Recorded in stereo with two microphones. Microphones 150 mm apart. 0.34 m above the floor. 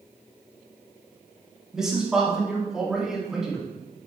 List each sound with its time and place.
1.7 s a man speaking: 5° right (ahead or behind), 3.5 m